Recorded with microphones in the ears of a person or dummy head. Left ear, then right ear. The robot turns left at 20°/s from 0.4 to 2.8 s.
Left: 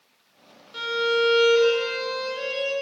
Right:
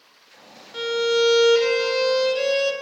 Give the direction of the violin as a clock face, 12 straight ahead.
12 o'clock.